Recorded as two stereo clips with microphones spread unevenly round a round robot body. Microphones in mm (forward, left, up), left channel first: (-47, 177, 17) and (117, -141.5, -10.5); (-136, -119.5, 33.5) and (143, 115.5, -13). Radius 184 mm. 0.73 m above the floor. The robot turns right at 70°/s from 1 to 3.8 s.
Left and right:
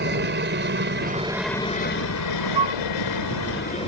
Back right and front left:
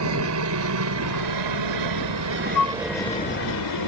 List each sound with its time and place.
0.0 s a helicopter: 5° right; by 3.9 s 170° right
2.5 s a flute: 100° right; by 2.8 s 80° right